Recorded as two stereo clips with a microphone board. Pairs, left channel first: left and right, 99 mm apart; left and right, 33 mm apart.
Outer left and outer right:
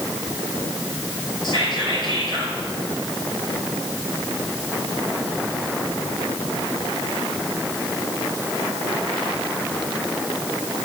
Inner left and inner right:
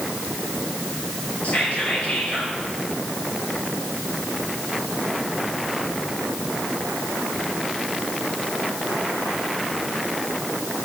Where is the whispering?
50° left (ahead or behind), 3 m.